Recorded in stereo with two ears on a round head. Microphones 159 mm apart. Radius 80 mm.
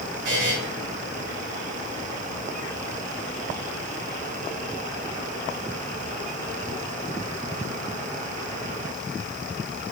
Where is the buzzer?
70° right (ahead or behind), 3 m.